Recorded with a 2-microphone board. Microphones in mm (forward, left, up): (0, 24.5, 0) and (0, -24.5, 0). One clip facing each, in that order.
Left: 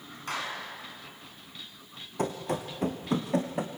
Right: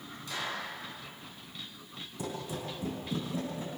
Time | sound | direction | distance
0.3 | a clap | 55° left (ahead or behind) | 6.5 m
2.2 | running footsteps | 55° left (ahead or behind) | 3 m